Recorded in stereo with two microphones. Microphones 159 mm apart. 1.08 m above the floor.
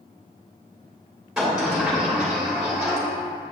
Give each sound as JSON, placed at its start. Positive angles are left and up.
{"t": 1.4, "sound": "a sliding door", "side_deg": -5, "distance_m": 2.5}